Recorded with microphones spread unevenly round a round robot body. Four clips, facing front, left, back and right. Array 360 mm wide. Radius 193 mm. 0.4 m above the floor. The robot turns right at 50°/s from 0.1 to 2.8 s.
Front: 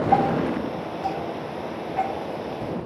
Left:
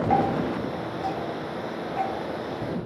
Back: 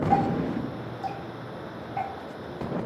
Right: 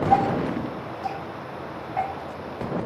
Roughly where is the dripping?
Behind left.